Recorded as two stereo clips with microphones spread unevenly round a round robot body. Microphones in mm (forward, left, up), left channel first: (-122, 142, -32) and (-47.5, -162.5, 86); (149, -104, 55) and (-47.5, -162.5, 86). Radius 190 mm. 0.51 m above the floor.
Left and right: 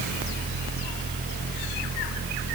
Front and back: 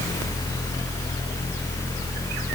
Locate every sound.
Only background noise.